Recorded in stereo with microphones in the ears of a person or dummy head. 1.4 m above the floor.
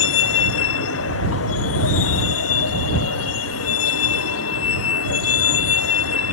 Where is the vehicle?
75° left (ahead or behind); by 6.3 s 90° left.